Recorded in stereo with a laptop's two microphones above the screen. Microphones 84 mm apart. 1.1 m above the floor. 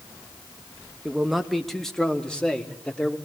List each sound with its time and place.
1.1 s a man speaking: 10° right (ahead or behind), 1.5 m; by 3.2 s 15° left (ahead or behind), 3.5 m